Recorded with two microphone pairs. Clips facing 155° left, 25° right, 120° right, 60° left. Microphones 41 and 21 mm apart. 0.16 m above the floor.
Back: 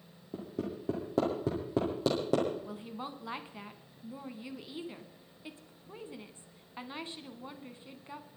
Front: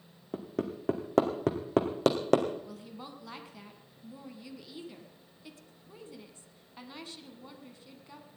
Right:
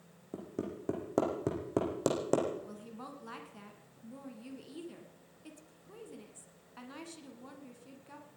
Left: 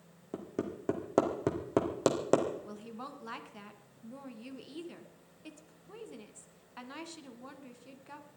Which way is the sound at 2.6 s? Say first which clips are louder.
Back 4 dB, left 2 dB; 115° left.